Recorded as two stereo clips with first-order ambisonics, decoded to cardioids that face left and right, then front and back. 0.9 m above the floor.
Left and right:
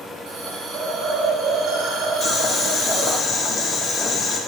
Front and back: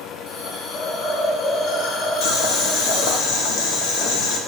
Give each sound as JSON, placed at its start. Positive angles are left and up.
{"t": 0.3, "sound": "a hiss", "azimuth_deg": -45, "distance_m": 0.8}
{"t": 2.2, "sound": "boiling", "azimuth_deg": 20, "distance_m": 1.0}